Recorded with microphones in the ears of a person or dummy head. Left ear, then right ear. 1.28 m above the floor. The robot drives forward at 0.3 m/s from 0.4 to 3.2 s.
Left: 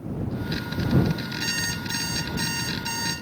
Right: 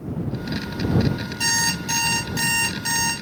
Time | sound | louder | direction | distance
1.4 | an alarm clock | right 7 dB | 70° right (ahead or behind) | 1.5 m